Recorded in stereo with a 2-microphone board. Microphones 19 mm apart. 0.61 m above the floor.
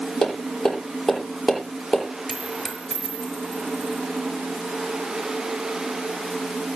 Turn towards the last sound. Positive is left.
turn(degrees=25)  # may be behind; listen again after turning